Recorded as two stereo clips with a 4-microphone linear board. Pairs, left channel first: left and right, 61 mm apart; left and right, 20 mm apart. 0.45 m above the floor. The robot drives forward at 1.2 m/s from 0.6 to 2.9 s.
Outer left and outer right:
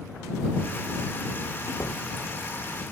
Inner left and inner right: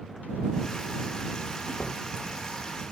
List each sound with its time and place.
1.7 s a door slam: 65° left (ahead or behind); by 2.0 s 60° left (ahead or behind)